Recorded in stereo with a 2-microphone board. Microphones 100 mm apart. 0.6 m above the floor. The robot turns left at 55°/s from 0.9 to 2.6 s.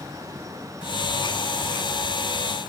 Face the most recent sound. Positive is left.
No sound to turn to.